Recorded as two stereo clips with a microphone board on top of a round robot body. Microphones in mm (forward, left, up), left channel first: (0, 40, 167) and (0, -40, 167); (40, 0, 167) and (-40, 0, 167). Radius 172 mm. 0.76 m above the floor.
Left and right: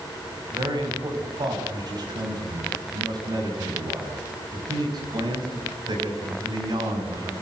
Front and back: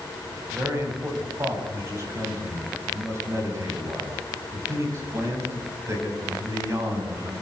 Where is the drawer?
No drawer in this recording.